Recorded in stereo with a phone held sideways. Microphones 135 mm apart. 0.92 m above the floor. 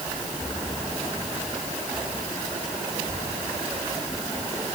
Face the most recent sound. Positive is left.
No sound to turn to.